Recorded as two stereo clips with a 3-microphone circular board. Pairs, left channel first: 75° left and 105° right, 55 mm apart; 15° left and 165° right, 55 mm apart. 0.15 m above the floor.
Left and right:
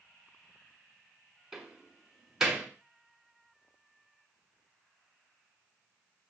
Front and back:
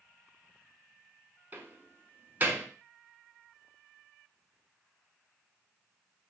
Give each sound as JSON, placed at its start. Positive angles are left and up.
{"t": 1.5, "sound": "a door slam", "azimuth_deg": -175, "distance_m": 1.0}